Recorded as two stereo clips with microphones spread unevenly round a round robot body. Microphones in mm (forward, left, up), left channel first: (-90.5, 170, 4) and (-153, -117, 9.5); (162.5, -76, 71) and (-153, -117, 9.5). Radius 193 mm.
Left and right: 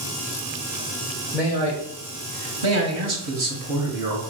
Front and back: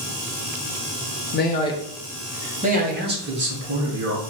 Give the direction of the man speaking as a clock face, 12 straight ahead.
12 o'clock.